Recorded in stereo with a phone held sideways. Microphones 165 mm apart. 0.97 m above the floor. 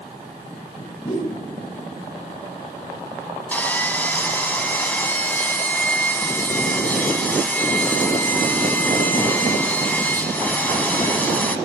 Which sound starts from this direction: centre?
Sawing, at 3.5 s.